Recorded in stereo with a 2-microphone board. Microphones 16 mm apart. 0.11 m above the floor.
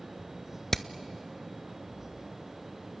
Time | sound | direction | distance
0.7 | hammering | 25° left (ahead or behind) | 0.6 m